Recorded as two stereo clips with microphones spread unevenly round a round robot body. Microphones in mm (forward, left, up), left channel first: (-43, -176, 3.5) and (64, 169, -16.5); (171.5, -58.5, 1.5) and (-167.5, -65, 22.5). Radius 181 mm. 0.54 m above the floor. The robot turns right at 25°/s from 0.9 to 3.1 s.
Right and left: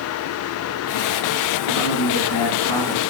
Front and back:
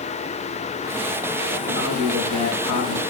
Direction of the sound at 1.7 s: 60° right.